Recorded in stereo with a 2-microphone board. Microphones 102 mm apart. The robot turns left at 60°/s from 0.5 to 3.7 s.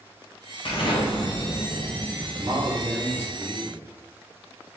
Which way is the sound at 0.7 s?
95° left.